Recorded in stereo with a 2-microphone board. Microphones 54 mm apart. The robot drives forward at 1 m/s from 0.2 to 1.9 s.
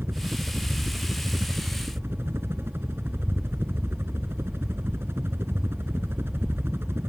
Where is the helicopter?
45° right (ahead or behind).